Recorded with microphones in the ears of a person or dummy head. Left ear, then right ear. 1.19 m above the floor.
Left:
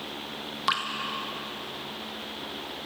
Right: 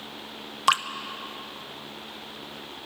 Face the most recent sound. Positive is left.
turn(degrees=-35)  # may be behind; listen again after turning